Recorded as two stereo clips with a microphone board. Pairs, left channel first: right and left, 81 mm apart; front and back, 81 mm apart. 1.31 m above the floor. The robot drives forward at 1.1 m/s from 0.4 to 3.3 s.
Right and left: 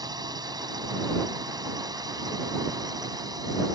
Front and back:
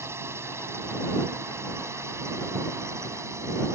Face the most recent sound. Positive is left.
turn(degrees=125)